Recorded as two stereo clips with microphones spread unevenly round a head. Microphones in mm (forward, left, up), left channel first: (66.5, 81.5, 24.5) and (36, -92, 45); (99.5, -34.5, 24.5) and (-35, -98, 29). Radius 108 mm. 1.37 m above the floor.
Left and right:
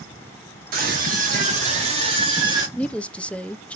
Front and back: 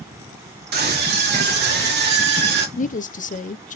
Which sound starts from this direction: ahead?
A woman speaking, at 2.8 s.